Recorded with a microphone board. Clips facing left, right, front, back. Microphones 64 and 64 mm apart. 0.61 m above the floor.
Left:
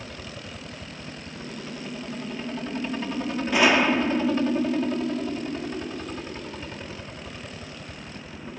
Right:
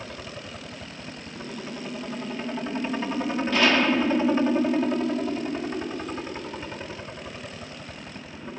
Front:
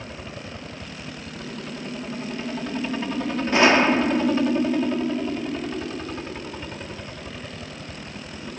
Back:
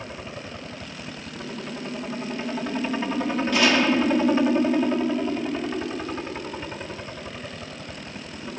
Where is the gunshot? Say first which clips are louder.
Left 2 dB, front 4 dB; 25° left.